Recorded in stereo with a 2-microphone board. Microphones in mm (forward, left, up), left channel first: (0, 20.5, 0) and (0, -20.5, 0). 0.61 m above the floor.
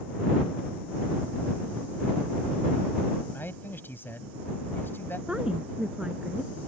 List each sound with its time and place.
3.3 s a man speaking: 60° left (ahead or behind)
5.3 s a woman speaking: 20° right (ahead or behind)